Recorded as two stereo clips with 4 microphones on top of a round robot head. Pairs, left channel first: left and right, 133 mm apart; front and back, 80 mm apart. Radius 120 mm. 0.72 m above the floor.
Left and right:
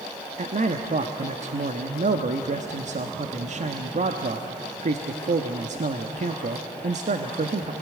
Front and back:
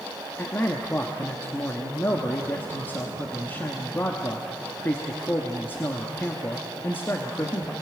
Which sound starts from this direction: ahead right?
A man speaking, at 0.4 s.